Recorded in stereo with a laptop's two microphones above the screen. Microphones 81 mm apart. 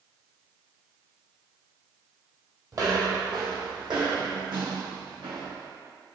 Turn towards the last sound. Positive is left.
turn(degrees=-70)  # may be behind; listen again after turning